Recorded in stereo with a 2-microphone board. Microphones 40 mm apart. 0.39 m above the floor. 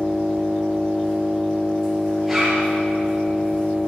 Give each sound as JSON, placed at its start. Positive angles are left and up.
{"t": 0.0, "sound": "an engine running", "side_deg": 10, "distance_m": 4.5}
{"t": 2.3, "sound": "a zipper", "side_deg": -5, "distance_m": 5.5}